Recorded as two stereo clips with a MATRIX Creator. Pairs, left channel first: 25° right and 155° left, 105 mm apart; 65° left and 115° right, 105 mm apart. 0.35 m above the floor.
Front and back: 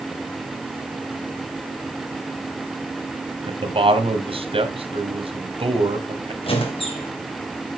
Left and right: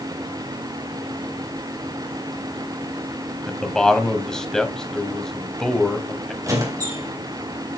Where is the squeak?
55° right, 4 m.